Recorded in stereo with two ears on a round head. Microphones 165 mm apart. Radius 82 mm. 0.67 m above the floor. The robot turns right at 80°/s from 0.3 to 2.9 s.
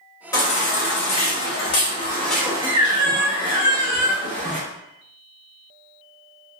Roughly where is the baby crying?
Ahead.